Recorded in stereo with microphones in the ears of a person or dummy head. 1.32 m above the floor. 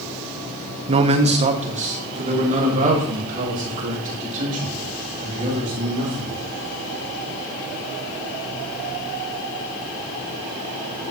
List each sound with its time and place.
0.9 s a man speaking: 30° right (ahead or behind), 0.6 m; by 6.3 s 40° right (ahead or behind), 3.5 m